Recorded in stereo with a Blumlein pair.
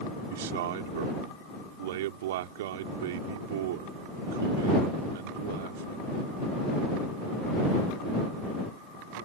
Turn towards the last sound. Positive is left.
turn(degrees=-55)